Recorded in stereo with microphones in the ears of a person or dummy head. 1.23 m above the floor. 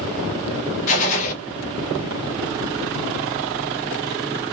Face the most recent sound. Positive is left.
turn(degrees=40)  # may be behind; listen again after turning